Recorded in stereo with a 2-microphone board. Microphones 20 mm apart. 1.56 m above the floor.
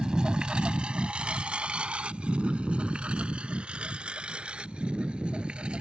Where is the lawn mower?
50° right (ahead or behind); by 5.8 s 60° right (ahead or behind).